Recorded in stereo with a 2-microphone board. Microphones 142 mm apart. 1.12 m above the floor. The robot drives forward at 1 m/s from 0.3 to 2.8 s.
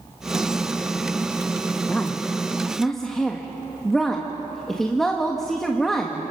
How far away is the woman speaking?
About 0.6 m.